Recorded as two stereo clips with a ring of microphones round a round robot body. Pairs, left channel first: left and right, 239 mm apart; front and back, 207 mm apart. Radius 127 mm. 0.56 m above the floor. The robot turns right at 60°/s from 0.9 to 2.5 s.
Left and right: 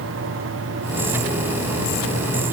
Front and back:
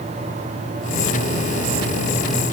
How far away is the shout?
No shout in this recording.